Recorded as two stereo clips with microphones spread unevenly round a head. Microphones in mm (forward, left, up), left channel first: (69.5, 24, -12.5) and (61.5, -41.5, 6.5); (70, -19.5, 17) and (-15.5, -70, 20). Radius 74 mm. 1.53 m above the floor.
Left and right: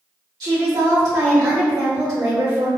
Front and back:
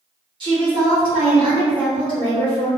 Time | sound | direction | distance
0.4 | a woman speaking | 110° right | 1.5 m